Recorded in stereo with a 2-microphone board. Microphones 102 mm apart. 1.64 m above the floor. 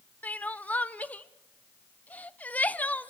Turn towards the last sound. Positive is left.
turn(degrees=15)  # may be behind; listen again after turning